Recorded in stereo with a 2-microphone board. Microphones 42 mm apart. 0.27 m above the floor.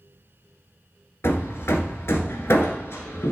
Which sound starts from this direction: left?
Hammering, at 1.2 s.